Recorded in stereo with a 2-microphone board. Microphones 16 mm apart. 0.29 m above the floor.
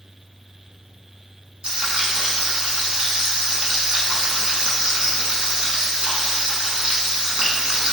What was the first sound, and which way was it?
Frying, 75° right (ahead or behind).